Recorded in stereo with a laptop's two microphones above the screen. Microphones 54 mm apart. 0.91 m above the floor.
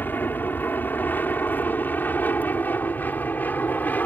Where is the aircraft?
35° left (ahead or behind); by 4.1 s 30° left (ahead or behind).